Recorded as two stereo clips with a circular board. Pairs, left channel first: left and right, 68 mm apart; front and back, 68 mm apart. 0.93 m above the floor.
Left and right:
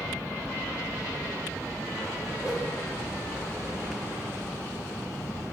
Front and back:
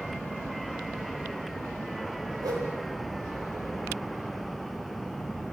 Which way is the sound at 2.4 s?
170° right.